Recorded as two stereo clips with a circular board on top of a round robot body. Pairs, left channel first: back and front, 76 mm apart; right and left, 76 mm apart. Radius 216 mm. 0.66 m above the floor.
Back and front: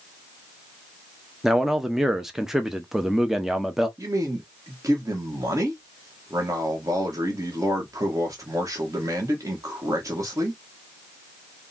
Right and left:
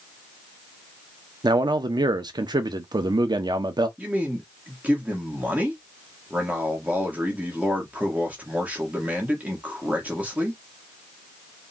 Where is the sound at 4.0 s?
25° left, 1.5 m.